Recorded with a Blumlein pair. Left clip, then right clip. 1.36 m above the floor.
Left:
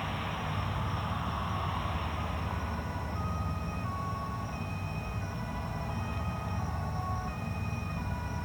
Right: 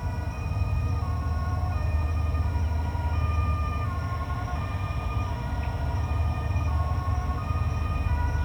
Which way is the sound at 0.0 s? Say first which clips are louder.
Left 3 dB; 55° right.